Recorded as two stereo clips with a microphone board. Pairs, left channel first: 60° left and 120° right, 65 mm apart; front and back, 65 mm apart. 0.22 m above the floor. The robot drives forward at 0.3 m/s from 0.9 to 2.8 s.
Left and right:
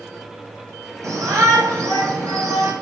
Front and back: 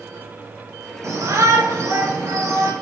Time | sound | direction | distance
1.0 | a shout | 145° right | 3.5 m